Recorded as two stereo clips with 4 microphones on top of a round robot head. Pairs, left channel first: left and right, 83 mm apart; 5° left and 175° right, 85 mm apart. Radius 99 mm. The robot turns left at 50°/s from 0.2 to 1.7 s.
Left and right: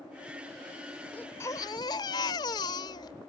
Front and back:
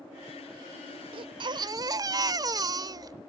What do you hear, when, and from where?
1.1 s a baby crying: 170° left; by 3.1 s 140° left